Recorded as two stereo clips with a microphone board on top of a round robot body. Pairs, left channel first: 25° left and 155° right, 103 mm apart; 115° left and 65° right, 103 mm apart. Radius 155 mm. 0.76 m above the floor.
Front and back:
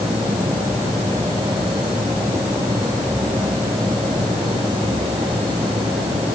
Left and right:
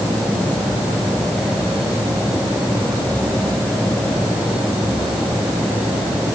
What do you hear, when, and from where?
Only background noise.